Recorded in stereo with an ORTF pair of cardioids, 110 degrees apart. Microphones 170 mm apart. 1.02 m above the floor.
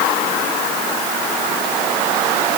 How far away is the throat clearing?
No throat clearing in this recording.